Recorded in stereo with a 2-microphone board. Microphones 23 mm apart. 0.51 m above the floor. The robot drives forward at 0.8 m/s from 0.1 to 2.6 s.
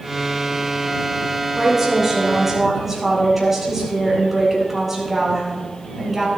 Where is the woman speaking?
15° right (ahead or behind), 7.5 m.